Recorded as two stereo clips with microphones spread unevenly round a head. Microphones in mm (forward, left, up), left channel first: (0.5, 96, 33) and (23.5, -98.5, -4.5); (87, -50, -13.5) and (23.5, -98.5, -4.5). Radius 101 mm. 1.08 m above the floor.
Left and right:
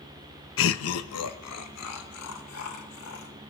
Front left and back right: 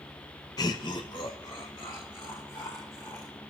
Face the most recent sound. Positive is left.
turn(degrees=105)